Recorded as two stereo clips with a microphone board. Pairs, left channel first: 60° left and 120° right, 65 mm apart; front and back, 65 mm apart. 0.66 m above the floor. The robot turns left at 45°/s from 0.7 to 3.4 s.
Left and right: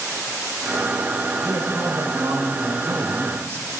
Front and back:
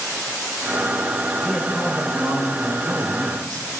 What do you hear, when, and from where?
1.4 s a man speaking: 90° right, 3 m; by 3.7 s 175° right, 3 m